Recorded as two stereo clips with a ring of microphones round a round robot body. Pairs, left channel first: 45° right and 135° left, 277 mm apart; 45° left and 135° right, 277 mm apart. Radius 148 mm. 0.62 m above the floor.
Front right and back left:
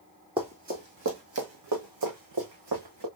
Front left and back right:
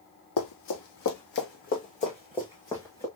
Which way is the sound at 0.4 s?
65° left.